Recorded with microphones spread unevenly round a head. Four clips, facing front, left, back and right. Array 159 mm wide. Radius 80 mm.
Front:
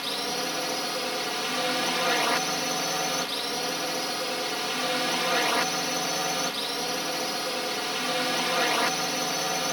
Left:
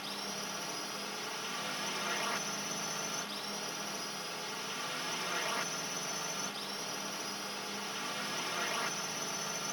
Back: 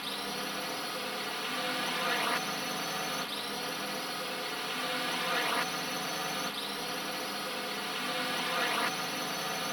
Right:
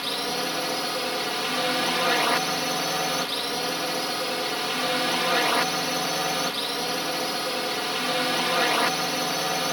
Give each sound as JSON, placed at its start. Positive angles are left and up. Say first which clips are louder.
{"t": 0.0, "sound": "a drone", "louder": "right 13 dB, front 7 dB", "azimuth_deg": -65}